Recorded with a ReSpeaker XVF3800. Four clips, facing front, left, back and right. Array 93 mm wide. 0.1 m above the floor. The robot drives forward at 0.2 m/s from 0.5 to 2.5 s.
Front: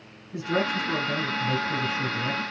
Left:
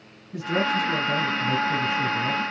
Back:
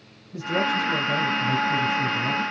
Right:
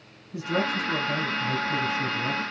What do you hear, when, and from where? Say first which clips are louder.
0.3 s a man speaking: left 3 dB, back 2 dB; 60° left, 3 m; by 2.4 s 65° left, 2.5 m